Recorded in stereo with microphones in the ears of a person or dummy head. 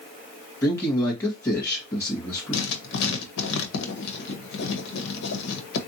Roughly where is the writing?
Left.